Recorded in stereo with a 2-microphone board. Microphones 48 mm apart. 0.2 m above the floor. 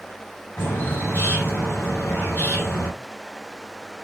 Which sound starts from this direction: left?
A bird, at 0.6 s.